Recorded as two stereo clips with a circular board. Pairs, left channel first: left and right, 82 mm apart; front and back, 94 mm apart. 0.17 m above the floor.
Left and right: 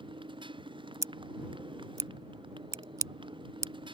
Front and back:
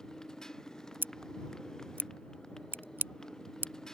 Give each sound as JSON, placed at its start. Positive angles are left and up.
{"t": 0.0, "sound": "a motorcycle", "azimuth_deg": -85}
{"t": 1.0, "sound": "scissors", "azimuth_deg": -120}